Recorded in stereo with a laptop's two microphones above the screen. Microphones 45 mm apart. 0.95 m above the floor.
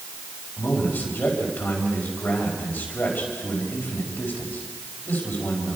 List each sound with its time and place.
0.6 s a man speaking: 40° left (ahead or behind), 5 m